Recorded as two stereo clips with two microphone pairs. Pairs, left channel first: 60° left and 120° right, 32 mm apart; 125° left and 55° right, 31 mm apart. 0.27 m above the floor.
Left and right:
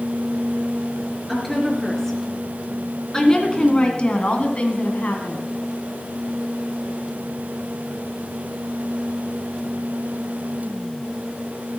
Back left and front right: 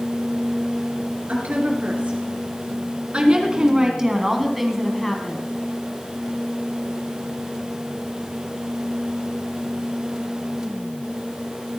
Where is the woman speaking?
30° right, 4.5 m; by 5.5 s 60° left, 2 m.